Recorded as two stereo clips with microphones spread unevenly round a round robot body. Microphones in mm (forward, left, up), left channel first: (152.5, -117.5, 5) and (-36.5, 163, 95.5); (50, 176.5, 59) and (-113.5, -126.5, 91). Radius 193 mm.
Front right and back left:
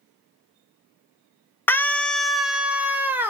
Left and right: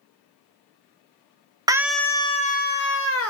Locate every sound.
1.7 s a scream: 40° right, 0.7 m; by 3.3 s 30° left, 1.2 m